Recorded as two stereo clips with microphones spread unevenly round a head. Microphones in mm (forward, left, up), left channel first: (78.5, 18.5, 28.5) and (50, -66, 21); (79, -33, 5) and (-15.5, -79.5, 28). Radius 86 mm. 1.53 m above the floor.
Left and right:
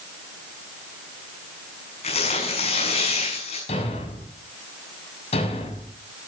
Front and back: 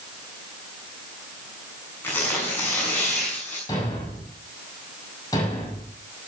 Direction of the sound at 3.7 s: 100° left.